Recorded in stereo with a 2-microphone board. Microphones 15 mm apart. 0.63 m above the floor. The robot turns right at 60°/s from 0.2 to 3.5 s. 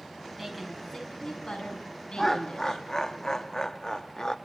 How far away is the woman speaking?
About 6.5 m.